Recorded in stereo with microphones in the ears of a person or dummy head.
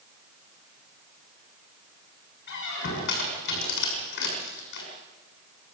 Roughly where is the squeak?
Left.